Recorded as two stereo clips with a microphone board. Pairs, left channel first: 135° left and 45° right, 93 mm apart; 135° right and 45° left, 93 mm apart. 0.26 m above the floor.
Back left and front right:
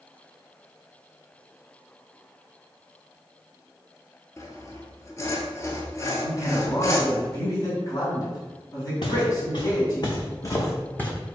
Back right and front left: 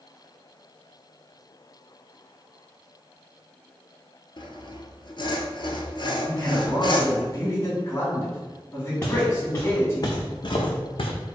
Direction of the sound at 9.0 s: 155° left.